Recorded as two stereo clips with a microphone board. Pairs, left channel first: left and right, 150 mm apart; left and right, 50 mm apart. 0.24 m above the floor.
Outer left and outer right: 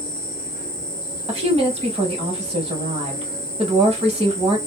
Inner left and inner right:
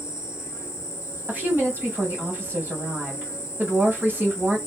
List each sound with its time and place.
0.0 s an insect: 70° left (ahead or behind), 0.7 m
1.3 s a woman speaking: 40° right (ahead or behind), 1.2 m